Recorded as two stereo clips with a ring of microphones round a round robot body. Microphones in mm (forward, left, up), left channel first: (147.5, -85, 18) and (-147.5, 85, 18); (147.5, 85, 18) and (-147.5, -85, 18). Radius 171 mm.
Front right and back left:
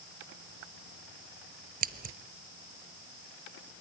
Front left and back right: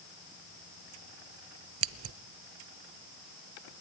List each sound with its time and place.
1.8 s scissors: 160° right, 0.5 m